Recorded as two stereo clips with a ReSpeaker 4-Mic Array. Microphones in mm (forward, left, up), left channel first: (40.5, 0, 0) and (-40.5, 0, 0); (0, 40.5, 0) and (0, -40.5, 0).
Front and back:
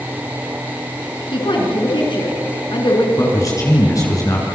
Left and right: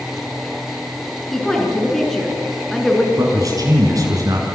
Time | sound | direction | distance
1.3 | a woman speaking | 5° left | 6.5 m
3.2 | a man speaking | 45° right | 7 m